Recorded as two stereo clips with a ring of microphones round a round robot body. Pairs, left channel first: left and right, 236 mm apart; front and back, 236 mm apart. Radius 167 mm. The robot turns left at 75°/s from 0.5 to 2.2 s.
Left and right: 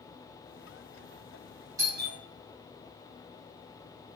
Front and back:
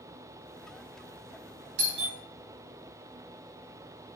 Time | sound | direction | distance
1.8 | a doorbell | 165° right | 2.5 m